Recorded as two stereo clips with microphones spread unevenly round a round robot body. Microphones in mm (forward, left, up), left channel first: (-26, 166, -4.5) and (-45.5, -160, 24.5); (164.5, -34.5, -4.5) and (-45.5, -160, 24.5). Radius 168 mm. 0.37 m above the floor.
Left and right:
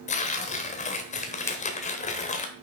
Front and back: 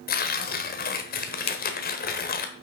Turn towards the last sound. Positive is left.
turn(degrees=20)